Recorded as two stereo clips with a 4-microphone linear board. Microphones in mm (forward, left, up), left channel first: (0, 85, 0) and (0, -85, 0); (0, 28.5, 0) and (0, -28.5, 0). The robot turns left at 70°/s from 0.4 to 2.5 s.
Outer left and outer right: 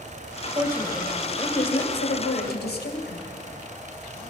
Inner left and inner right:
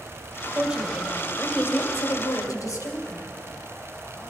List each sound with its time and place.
0.6 s a woman speaking: 155° right, 2 m; by 3.2 s 70° left, 2 m